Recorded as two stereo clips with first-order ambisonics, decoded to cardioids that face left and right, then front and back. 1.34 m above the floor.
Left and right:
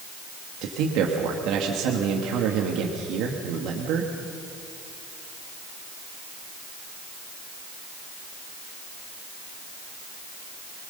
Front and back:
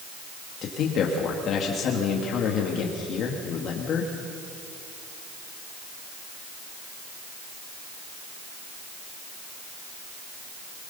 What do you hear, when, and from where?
0.6 s a man speaking: 55° right, 1.9 m